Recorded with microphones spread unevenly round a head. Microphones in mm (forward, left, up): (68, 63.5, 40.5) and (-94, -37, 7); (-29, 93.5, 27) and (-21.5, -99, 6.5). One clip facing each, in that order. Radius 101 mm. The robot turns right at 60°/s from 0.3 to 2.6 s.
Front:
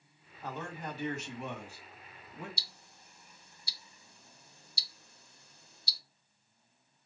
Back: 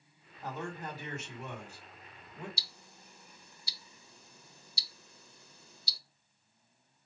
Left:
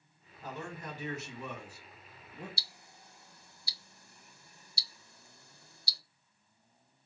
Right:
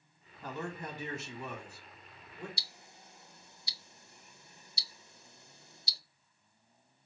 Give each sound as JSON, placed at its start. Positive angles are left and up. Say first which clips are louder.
{"t": 0.4, "sound": "a man speaking", "louder": "back 1 dB, right 2 dB", "azimuth_deg": -70, "distance_m": 1.9}
{"t": 2.6, "sound": "ticking", "louder": "back 2 dB, right 1 dB", "azimuth_deg": -160, "distance_m": 0.6}